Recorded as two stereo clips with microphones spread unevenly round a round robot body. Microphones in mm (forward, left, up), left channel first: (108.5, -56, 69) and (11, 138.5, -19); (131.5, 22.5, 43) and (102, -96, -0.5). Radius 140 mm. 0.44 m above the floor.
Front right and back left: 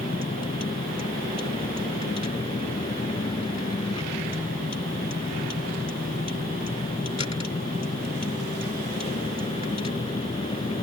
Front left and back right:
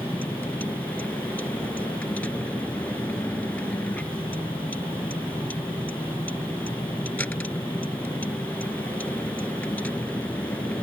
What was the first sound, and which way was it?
A vehicle, straight ahead.